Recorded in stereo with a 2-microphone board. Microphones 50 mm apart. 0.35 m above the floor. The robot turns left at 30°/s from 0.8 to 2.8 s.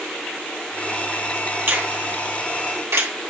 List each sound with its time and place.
1.7 s a finger snap: 40° right (ahead or behind), 2.5 m; by 3.1 s 65° right (ahead or behind), 2.5 m